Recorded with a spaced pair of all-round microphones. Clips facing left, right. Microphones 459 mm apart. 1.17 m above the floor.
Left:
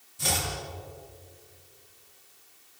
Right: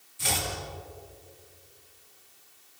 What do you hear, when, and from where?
0.2 s chopping: 60° left (ahead or behind), 6.5 m